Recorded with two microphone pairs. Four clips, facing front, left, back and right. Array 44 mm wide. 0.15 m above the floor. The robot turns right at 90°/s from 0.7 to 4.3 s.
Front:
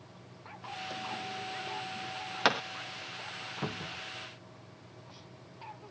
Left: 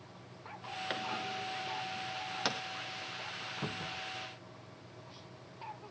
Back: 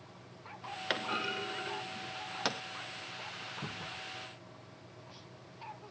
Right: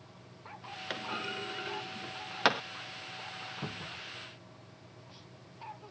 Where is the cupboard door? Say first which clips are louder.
Left 2 dB, front 4 dB; 5° left; by 4.0 s 40° left.